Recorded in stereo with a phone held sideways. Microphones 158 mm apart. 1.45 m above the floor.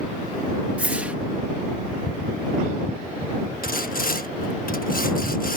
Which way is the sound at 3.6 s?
65° left (ahead or behind).